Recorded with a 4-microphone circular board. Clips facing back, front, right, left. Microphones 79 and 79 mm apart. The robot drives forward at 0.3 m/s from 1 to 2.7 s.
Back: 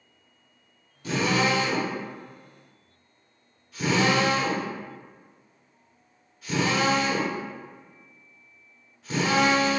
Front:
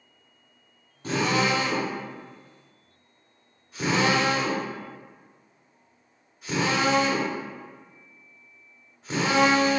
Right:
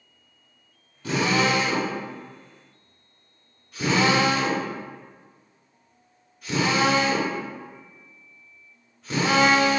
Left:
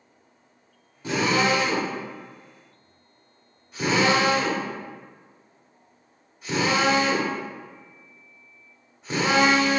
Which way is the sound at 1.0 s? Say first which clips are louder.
Even, even; 30° left.